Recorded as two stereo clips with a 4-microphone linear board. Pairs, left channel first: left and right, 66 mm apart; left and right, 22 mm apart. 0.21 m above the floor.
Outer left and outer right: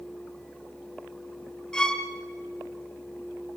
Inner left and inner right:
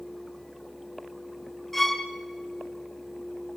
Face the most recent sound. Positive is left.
turn(degrees=10)  # may be behind; listen again after turning